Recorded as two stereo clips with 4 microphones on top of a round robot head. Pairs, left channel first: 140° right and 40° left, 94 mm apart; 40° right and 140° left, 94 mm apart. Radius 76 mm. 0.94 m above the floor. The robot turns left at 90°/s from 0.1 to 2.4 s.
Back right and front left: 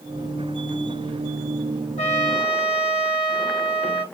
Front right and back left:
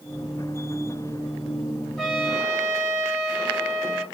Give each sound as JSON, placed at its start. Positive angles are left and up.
{"t": 2.0, "sound": "a trumpet", "azimuth_deg": -130, "distance_m": 1.2}